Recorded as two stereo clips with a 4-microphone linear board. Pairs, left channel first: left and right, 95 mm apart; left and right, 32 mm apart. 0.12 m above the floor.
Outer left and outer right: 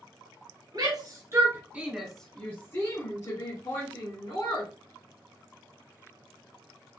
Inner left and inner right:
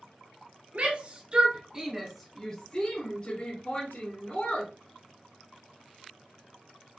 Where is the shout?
50° right (ahead or behind), 1.6 m; by 4.7 s 65° left (ahead or behind), 2.5 m.